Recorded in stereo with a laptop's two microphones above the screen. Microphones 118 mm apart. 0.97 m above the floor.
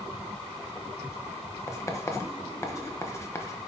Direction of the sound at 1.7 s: 25° left (ahead or behind).